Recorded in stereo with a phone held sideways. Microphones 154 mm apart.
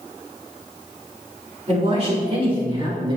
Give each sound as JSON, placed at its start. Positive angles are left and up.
{"t": 1.7, "sound": "a man speaking", "side_deg": -45, "distance_m": 3.0}